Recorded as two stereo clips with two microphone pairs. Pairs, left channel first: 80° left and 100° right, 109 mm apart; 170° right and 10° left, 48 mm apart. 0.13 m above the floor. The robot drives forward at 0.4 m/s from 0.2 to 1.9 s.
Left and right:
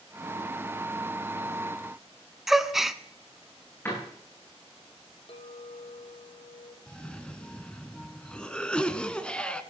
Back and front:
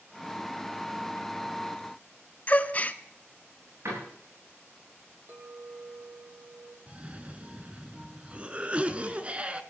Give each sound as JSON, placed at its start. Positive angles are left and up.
{"t": 2.5, "sound": "a gasp", "azimuth_deg": 180, "distance_m": 0.6}
{"t": 3.9, "sound": "a door slam", "azimuth_deg": 10, "distance_m": 9.5}
{"t": 5.3, "sound": "a clink", "azimuth_deg": 50, "distance_m": 3.0}
{"t": 6.9, "sound": "a cough", "azimuth_deg": 5, "distance_m": 1.2}